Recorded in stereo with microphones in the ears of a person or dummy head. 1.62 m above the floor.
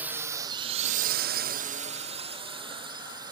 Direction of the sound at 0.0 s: 5° right (ahead or behind).